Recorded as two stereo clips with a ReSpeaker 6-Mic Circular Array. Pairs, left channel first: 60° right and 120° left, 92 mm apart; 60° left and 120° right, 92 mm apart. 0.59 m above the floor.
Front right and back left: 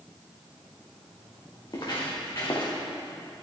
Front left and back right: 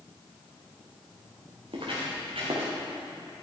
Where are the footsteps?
100° right, 3.5 m; by 2.7 s 115° right, 3.5 m.